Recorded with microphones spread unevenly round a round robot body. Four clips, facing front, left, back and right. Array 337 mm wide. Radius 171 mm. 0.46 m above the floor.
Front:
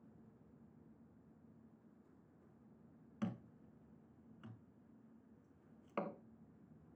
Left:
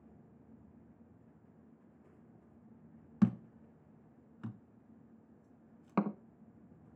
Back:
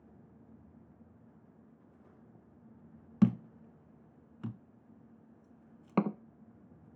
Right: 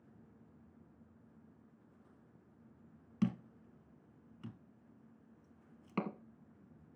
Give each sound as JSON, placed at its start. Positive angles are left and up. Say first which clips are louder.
{"t": 3.2, "sound": "a thud", "louder": "left 5 dB, back 17 dB", "azimuth_deg": 165, "distance_m": 0.7}